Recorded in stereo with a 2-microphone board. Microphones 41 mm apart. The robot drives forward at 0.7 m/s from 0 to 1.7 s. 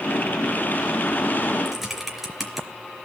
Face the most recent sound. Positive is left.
turn(degrees=-5)  # may be behind; listen again after turning